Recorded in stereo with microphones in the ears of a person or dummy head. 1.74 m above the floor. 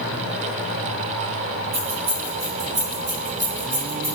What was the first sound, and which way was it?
Keys jangling, 55° right (ahead or behind).